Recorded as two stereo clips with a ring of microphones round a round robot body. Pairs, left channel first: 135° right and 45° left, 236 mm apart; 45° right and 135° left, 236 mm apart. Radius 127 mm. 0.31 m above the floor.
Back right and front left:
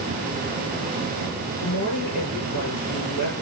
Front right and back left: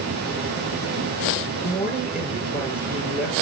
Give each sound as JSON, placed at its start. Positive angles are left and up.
{"t": 1.6, "sound": "a woman speaking", "azimuth_deg": -140, "distance_m": 7.0}